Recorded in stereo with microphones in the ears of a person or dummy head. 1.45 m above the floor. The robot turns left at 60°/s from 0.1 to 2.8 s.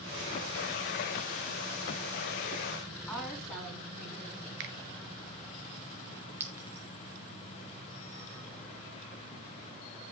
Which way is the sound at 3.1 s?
Centre (ahead or behind).